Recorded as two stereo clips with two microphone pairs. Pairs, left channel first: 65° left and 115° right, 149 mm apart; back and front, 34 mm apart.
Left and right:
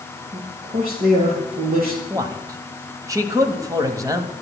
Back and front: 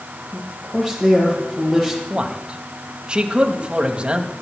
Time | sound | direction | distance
0.3 | a man speaking | 100° right | 7 m
2.1 | a man speaking | 55° right | 1.4 m